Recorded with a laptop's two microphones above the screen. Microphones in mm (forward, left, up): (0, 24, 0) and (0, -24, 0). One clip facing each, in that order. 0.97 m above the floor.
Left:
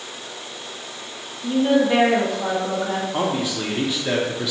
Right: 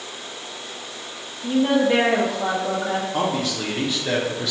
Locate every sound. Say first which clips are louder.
1.4 s a woman speaking: left 1 dB; 15° right (ahead or behind), 0.7 m
3.1 s a man speaking: even; 10° left (ahead or behind), 0.5 m